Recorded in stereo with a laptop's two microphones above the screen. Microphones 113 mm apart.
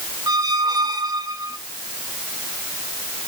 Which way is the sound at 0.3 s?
30° right (ahead or behind).